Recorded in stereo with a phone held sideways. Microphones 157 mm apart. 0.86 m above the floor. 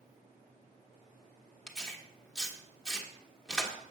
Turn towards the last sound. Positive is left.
turn(degrees=5)  # may be behind; listen again after turning